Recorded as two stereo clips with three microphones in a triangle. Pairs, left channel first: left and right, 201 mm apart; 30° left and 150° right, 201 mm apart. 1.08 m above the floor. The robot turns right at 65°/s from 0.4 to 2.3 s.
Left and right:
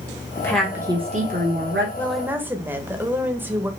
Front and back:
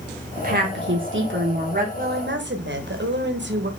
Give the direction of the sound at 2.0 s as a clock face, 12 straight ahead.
6 o'clock.